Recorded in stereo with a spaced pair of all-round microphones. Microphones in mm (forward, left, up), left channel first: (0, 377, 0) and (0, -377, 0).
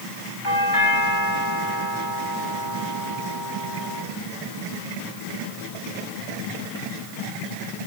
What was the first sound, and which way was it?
A doorbell, 80° left.